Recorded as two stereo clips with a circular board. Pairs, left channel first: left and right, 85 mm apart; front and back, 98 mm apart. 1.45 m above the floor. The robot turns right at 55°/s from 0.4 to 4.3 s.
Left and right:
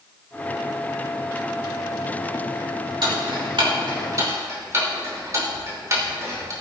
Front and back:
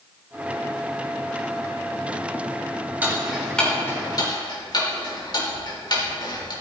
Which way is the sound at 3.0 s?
110° right.